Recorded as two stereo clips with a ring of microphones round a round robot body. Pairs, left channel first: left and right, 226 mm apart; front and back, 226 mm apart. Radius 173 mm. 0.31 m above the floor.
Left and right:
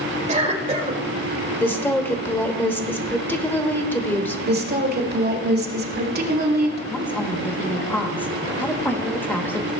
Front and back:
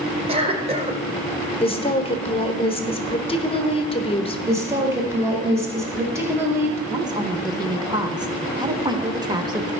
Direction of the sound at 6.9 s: 155° left.